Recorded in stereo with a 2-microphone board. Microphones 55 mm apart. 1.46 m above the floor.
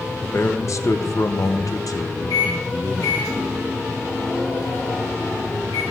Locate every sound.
0.2 s a man speaking: 45° left (ahead or behind), 1.0 m
2.3 s a microwave: 70° left (ahead or behind), 6.5 m